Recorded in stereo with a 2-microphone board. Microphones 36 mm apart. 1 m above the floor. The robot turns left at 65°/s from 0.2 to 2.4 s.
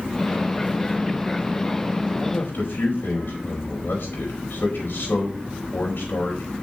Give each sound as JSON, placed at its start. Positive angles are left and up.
{"t": 2.2, "sound": "a man speaking", "side_deg": 65, "distance_m": 4.0}